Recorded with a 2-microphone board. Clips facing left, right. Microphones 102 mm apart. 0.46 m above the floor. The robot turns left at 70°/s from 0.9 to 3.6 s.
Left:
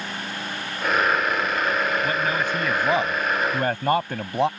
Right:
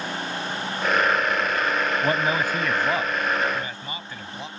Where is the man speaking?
135° right; by 4.5 s 115° left.